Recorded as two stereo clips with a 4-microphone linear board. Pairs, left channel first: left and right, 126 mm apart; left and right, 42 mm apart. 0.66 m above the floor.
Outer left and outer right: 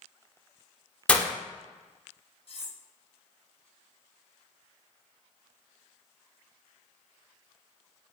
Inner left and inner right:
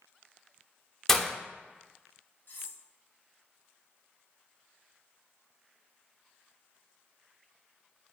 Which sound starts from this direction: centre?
Breaking glass, at 1.1 s.